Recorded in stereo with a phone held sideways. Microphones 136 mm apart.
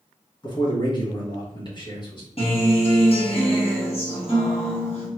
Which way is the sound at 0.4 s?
30° left (ahead or behind).